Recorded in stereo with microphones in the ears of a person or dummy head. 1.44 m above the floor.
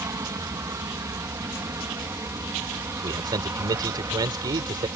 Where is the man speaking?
25° right (ahead or behind).